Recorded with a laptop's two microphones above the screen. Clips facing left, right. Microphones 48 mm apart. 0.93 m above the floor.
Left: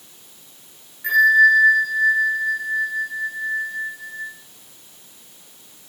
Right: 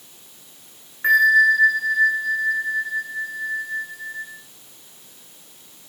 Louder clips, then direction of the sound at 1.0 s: Left 1 dB; 45° right (ahead or behind).